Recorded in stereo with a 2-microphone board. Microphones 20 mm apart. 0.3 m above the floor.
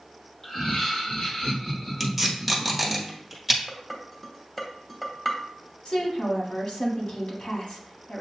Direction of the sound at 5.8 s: 60° left (ahead or behind).